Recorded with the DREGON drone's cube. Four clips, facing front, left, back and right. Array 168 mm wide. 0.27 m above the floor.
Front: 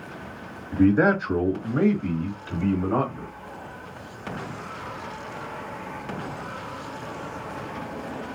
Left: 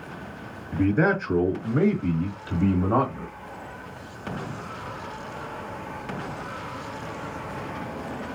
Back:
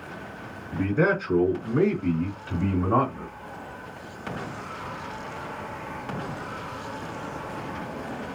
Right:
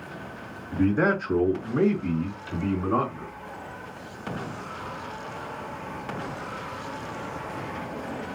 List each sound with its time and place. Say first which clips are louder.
0.7 s a man speaking: left 1 dB, front 5 dB; straight ahead, 1.7 m; by 3.3 s 95° left, 1.7 m